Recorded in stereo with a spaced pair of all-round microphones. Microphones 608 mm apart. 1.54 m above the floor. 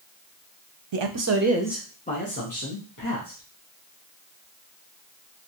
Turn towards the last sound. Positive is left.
turn(degrees=35)  # may be behind; listen again after turning